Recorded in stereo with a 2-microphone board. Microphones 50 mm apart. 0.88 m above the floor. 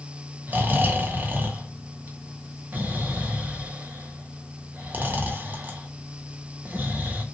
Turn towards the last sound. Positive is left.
turn(degrees=-40)  # may be behind; listen again after turning